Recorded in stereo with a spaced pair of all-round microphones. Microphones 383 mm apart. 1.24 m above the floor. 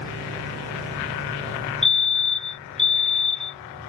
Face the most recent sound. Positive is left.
turn(degrees=35)  # may be behind; listen again after turning